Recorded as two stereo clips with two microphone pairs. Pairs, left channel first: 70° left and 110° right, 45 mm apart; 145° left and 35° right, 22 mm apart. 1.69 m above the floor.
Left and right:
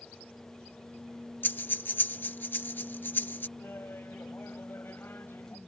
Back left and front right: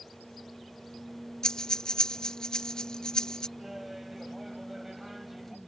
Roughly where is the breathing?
Left.